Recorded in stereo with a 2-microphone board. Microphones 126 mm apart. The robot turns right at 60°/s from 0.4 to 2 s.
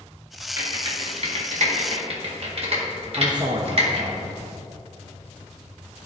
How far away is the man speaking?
About 0.7 m.